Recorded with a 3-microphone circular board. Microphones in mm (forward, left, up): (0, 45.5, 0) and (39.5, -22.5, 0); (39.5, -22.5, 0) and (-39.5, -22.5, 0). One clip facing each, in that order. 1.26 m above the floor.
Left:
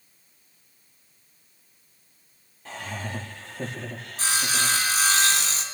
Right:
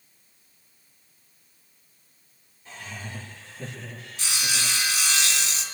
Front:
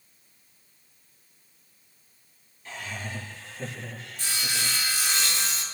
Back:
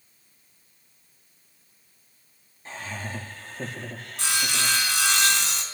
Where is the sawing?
170° left, 4 m.